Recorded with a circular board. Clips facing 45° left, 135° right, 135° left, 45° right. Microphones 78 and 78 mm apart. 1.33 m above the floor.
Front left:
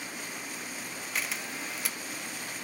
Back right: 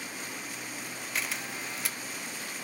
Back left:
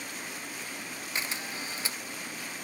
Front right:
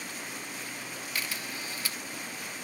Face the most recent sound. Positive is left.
turn(degrees=135)